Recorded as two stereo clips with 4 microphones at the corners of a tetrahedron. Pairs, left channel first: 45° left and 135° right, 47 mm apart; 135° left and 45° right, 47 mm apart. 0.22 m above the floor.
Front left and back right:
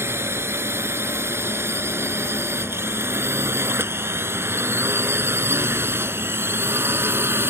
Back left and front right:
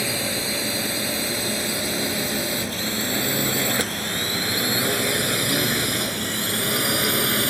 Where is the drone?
130° right; by 7.5 s 135° right.